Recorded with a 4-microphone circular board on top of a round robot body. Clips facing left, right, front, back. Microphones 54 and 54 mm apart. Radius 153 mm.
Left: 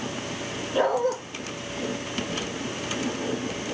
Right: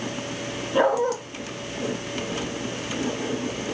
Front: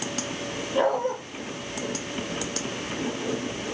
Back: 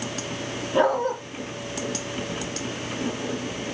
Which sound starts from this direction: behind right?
A dog barking, at 0.7 s.